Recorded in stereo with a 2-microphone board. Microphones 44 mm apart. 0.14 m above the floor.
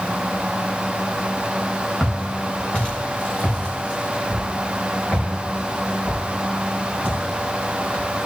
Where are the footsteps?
20° left (ahead or behind), 3.5 m; by 8.3 s 35° left (ahead or behind), 6.5 m.